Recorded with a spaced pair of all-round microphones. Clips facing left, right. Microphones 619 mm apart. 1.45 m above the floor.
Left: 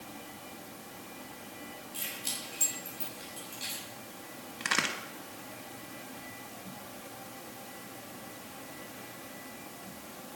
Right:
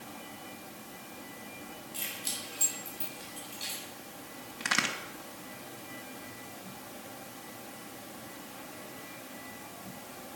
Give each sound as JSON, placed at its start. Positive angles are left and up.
{"t": 1.9, "sound": "keys jangling", "side_deg": -10, "distance_m": 6.0}
{"t": 4.6, "sound": "a crack", "side_deg": -15, "distance_m": 1.5}